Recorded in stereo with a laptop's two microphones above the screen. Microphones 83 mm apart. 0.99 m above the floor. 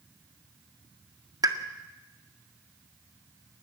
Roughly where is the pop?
Right.